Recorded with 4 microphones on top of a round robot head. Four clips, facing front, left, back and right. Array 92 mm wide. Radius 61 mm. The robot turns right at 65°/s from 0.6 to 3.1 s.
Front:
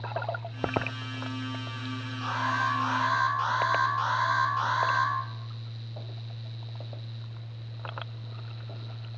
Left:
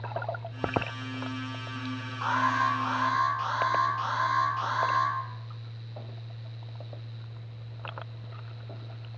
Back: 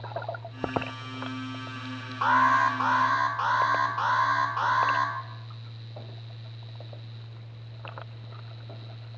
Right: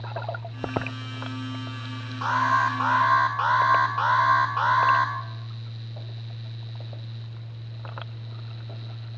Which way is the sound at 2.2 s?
165° right.